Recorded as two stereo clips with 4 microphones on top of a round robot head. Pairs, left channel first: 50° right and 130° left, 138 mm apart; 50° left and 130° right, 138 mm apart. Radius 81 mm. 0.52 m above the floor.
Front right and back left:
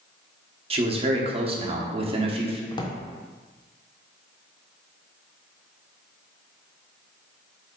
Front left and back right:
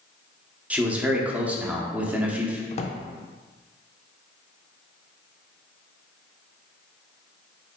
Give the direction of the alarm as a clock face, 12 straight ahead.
No alarm in this recording.